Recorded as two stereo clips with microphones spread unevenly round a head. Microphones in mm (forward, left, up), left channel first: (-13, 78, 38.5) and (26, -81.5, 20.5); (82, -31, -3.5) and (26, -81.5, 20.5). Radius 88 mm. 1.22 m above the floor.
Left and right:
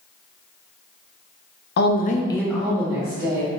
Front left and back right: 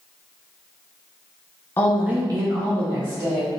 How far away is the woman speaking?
About 0.6 m.